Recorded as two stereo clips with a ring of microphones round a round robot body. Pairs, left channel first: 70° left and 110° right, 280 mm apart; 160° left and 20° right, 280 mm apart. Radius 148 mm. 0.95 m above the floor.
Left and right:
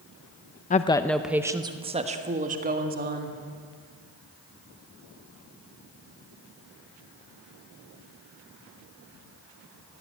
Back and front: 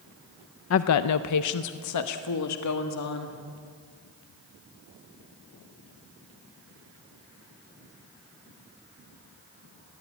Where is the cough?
I don't hear a cough.